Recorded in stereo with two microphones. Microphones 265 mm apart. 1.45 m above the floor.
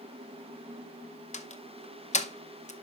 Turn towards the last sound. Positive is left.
turn(degrees=25)  # may be behind; listen again after turning